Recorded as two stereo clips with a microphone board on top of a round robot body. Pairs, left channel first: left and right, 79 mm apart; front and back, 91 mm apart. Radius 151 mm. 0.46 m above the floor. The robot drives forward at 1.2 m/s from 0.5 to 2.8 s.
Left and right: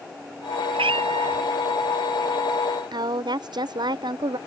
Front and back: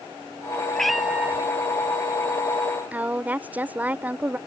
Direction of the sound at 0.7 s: 85° right.